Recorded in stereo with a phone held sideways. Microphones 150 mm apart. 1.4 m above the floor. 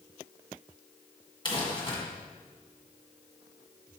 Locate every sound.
1.4 s crumpling: 30° left (ahead or behind), 1.9 m